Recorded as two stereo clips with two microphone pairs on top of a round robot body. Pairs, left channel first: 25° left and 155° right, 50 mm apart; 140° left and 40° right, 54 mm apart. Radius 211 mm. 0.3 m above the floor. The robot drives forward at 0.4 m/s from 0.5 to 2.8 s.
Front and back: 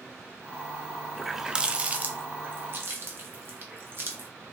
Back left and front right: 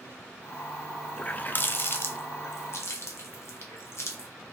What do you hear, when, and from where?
1.2 s a running tap: 105° left, 0.6 m; by 4.3 s 165° left, 0.9 m